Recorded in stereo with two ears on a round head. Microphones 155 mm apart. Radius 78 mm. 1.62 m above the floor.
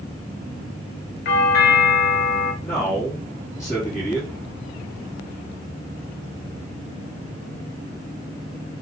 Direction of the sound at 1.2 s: 60° left (ahead or behind).